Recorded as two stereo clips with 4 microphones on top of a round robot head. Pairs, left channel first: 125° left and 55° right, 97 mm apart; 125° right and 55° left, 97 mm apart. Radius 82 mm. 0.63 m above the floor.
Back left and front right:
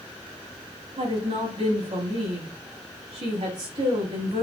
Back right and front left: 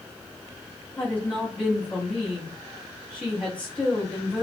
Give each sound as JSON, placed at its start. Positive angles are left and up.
{"t": 1.0, "sound": "a woman speaking", "azimuth_deg": -45, "distance_m": 4.5}